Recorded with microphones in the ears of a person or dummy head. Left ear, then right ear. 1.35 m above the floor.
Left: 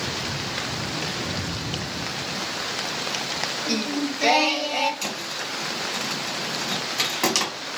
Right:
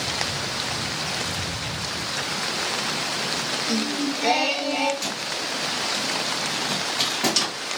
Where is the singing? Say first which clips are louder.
Right 1 dB; 55° left (ahead or behind), 0.6 m.